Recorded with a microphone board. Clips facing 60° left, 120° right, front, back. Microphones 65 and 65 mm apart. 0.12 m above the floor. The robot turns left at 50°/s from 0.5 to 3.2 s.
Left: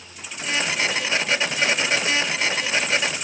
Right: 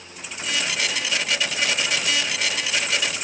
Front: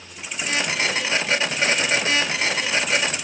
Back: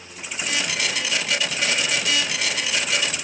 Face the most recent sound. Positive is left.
No sound to turn to.